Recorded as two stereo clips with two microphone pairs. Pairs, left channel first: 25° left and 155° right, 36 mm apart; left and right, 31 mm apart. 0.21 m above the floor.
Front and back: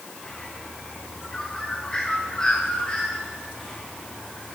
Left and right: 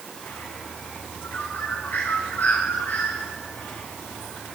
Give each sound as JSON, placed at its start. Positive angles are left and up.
{"t": 0.2, "sound": "a bird", "azimuth_deg": 100, "distance_m": 5.5}